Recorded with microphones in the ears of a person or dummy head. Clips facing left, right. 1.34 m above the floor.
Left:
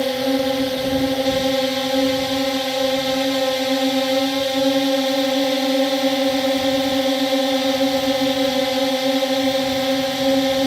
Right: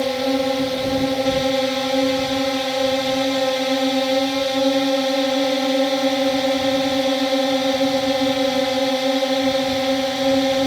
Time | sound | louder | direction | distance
0.0 | a drone | even | 5° left (ahead or behind) | ?